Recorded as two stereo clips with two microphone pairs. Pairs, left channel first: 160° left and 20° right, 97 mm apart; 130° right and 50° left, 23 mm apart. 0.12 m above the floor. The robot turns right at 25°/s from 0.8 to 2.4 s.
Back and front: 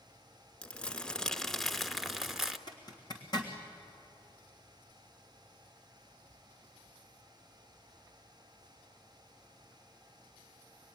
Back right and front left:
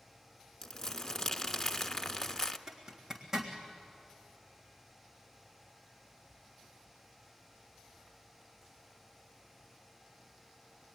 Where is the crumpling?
140° right, 1.0 m; by 2.6 s 100° right, 1.0 m.